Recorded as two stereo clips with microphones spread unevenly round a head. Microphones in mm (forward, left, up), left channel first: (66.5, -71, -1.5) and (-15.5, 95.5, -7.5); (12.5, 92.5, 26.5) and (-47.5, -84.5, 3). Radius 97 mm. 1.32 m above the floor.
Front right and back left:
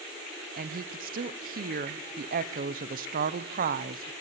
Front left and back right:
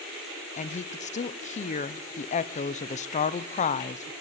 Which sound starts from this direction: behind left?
A woman speaking, at 0.6 s.